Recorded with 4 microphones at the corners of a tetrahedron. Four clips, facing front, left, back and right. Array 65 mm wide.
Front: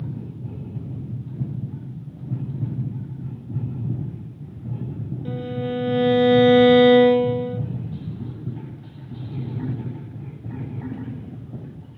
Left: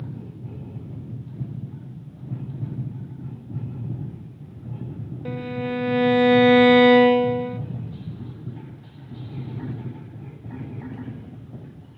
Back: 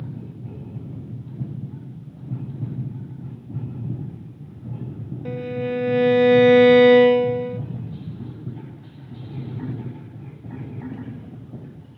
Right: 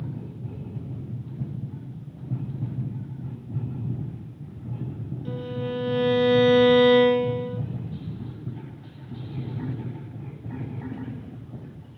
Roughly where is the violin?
Behind left.